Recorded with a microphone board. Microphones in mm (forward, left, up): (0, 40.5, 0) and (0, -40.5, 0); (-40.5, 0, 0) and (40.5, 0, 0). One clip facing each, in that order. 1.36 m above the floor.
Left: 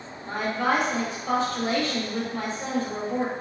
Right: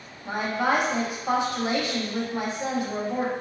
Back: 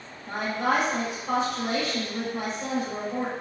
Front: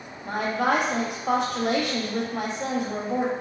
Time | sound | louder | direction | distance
0.2 | a woman speaking | even, front 2 dB | 15° right | 0.6 m